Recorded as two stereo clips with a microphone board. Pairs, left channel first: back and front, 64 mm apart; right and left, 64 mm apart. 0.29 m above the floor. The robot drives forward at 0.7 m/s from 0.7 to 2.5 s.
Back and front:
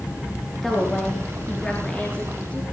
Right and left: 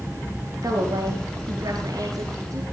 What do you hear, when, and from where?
0.6 s a woman speaking: 95° left, 4.5 m; by 2.6 s 115° left, 5 m